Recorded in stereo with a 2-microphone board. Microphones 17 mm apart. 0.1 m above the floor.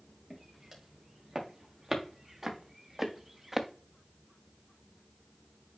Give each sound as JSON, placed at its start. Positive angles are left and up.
{"t": 0.3, "sound": "footsteps", "side_deg": -15, "distance_m": 3.5}